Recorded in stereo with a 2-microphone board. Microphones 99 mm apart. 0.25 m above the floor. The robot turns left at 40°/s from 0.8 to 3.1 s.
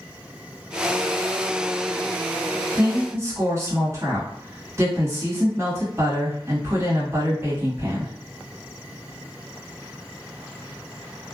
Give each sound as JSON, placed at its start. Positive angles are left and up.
{"t": 2.7, "sound": "a woman speaking", "side_deg": -20, "distance_m": 1.6}